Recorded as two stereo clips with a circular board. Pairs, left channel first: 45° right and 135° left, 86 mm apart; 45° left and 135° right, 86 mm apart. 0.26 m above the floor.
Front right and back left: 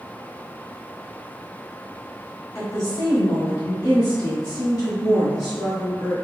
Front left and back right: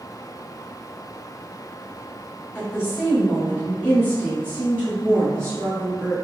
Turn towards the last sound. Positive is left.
turn(degrees=-95)